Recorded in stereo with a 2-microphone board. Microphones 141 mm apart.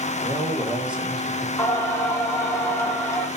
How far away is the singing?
About 1.3 m.